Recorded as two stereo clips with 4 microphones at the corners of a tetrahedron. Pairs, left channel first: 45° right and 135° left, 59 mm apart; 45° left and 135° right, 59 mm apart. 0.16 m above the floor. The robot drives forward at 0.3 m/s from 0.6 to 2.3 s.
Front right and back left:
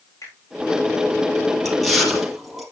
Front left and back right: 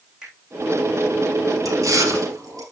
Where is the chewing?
130° right, 3 m; by 2.6 s 135° right, 3 m.